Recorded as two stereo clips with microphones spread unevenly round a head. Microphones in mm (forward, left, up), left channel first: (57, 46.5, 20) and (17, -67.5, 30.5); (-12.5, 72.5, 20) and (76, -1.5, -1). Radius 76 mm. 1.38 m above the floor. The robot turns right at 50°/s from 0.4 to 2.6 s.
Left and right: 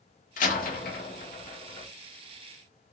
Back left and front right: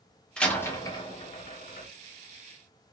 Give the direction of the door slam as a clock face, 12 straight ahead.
10 o'clock.